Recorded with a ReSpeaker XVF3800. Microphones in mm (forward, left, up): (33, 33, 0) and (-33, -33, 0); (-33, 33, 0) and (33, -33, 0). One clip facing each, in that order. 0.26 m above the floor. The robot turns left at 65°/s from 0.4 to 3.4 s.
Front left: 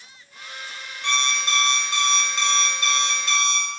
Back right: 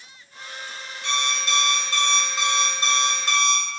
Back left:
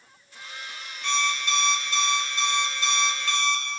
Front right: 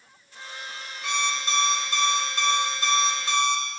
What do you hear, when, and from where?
1.0 s an alarm clock: 35° left, 0.5 m; by 3.6 s 115° right, 0.5 m